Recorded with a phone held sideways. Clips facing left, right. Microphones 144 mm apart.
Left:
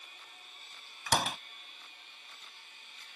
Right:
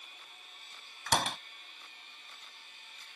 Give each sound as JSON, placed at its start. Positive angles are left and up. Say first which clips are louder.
{"t": 1.1, "sound": "a door slam", "louder": "even", "side_deg": 5}